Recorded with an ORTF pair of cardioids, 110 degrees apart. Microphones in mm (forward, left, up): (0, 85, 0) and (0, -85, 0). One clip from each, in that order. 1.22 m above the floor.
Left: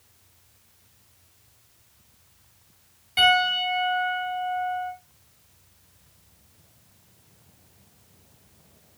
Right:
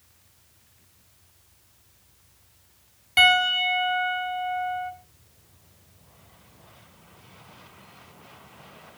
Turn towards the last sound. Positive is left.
turn(degrees=-40)